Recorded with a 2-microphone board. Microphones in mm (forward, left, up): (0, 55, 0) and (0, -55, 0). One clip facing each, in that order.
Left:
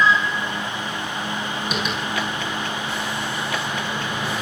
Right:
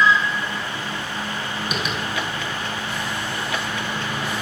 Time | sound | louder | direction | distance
1.7 | tapping | left 1 dB | centre (ahead or behind) | 6 m